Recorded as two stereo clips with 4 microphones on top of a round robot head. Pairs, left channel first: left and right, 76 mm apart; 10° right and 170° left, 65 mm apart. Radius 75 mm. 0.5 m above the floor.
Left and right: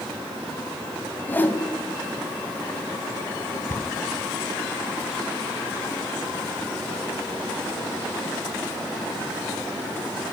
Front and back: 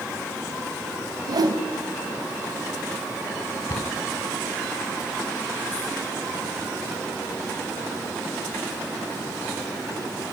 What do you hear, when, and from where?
1.3 s a whoosh: 155° left, 2.5 m
3.7 s a cupboard door: 25° left, 1.8 m